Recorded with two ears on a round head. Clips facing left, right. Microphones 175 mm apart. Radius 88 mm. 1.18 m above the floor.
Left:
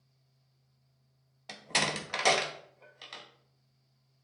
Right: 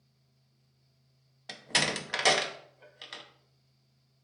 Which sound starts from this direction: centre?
A door slam, at 1.5 s.